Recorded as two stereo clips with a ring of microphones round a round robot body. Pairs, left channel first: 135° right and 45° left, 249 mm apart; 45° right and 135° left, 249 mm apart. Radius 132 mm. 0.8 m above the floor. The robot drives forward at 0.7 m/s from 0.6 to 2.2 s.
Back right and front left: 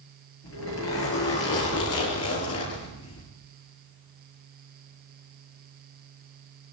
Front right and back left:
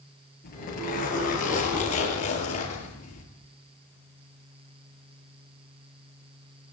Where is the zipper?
100° right, 8.5 m; by 3.2 s 110° right, 8.5 m.